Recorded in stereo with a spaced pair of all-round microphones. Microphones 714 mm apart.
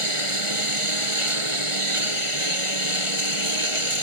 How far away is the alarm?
No alarm in this recording.